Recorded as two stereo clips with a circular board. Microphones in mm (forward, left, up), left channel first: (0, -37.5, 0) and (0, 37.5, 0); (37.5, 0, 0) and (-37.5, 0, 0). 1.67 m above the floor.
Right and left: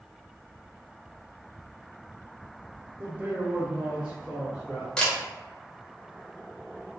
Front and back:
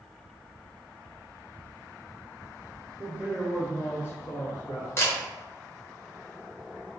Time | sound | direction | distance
3.0 | a man speaking | 145° left | 0.7 m
5.0 | a camera shutter | 20° right | 0.7 m